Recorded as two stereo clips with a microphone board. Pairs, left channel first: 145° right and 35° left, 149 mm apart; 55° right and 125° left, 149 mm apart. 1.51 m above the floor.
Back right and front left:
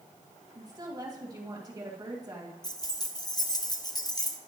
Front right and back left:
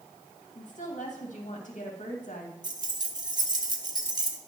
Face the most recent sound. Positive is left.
turn(degrees=170)